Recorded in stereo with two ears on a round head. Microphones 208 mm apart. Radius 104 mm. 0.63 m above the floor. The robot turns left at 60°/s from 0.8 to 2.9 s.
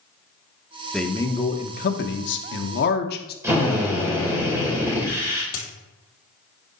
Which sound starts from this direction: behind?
A man speaking, at 0.9 s.